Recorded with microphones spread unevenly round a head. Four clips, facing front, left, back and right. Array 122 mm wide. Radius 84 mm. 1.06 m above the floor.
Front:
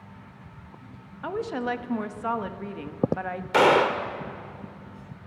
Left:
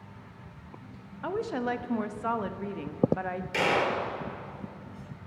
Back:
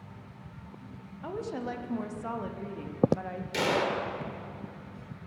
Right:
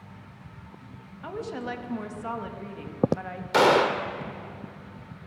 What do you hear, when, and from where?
1.2 s a woman speaking: 5° left, 1.2 m
3.5 s a gunshot: 70° right, 0.7 m